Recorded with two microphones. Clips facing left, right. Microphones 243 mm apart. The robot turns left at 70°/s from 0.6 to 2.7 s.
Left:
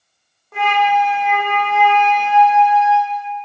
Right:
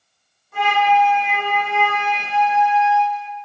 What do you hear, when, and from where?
0.5 s a flute: 85° left, 0.7 m; by 3.3 s 65° right, 0.7 m